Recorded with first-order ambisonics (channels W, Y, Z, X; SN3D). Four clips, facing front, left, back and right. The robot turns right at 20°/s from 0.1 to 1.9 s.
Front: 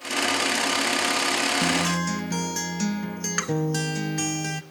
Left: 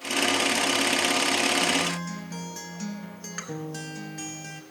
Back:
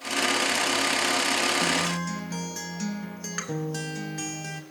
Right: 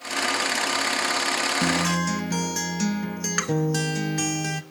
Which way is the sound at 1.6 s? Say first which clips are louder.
Right 3 dB, front 2 dB; 65° right.